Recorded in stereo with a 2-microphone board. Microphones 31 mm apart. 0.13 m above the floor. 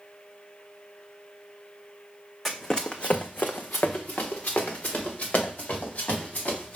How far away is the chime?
I don't hear a chime.